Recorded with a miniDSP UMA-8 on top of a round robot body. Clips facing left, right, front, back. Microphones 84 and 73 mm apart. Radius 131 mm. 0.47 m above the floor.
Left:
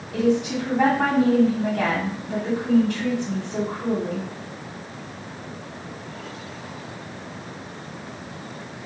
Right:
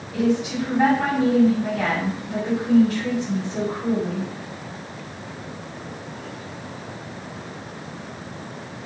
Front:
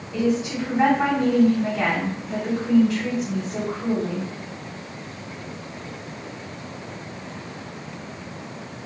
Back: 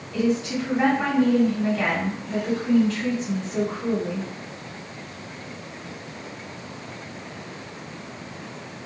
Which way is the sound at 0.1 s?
75° left.